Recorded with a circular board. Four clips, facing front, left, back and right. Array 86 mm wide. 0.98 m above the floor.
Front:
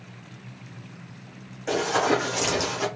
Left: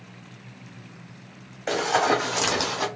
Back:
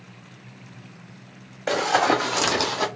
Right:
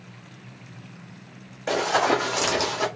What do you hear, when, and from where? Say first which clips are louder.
1.7 s running footsteps: even, back 2 dB; 175° left, 2 m; by 2.9 s 165° left, 1.6 m